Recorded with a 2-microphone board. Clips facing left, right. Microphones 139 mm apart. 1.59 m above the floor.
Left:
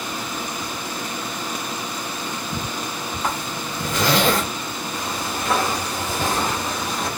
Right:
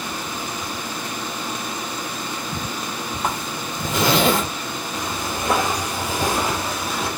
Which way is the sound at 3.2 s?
25° right (ahead or behind).